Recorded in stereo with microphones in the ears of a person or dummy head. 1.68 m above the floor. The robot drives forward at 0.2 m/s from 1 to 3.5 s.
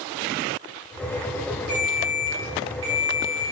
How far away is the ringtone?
About 0.6 m.